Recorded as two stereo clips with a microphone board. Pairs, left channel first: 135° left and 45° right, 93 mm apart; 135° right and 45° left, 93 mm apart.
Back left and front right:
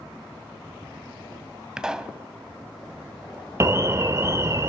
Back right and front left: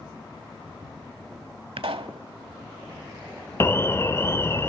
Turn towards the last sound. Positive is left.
turn(degrees=-90)